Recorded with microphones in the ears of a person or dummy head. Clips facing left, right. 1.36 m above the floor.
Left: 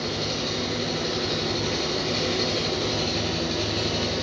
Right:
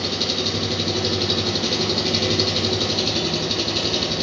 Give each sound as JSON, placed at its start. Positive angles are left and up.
{"t": 0.0, "sound": "an engine running", "side_deg": -65, "distance_m": 0.8}